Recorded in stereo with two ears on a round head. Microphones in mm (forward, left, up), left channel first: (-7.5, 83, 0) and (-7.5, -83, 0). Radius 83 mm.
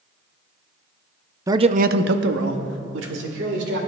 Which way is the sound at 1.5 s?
15° right (ahead or behind).